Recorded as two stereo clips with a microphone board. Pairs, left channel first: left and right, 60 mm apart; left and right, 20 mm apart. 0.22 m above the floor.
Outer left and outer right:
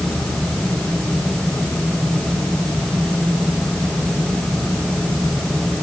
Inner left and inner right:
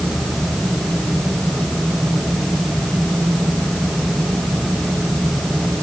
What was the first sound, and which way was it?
Only background noise.